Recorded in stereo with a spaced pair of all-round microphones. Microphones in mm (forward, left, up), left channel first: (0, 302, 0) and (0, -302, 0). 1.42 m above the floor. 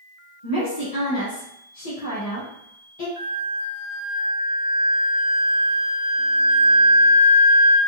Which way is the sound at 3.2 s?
65° right (ahead or behind).